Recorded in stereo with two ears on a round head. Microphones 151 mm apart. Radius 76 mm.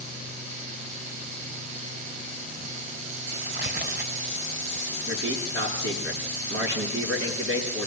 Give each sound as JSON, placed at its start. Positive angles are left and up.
{"t": 3.4, "sound": "tearing paper", "side_deg": -55, "distance_m": 3.0}
{"t": 5.1, "sound": "a man speaking", "side_deg": -85, "distance_m": 9.0}